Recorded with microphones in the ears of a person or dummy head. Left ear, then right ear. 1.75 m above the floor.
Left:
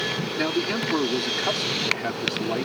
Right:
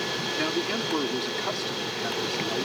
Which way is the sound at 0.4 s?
5° left (ahead or behind).